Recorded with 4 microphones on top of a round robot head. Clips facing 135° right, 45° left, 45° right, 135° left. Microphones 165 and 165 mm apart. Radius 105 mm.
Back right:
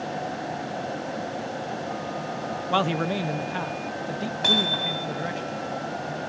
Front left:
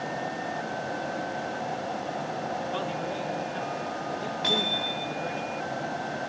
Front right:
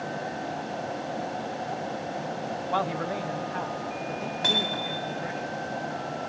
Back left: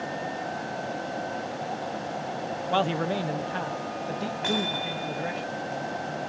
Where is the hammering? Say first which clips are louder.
Back right 3 dB, back left 2 dB; 100° right, 7 m.